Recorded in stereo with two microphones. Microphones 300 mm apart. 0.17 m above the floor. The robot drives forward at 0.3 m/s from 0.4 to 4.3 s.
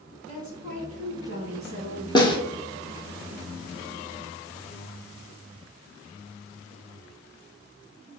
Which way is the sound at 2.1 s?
15° left (ahead or behind).